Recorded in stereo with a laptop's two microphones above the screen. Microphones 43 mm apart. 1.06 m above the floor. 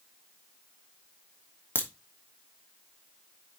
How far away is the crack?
About 2.5 m.